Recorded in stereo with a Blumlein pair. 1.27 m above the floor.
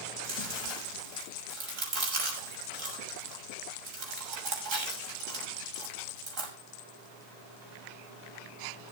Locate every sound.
0.2 s chewing: 40° right, 6 m